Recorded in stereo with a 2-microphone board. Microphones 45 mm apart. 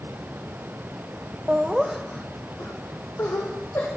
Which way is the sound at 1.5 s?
30° right (ahead or behind).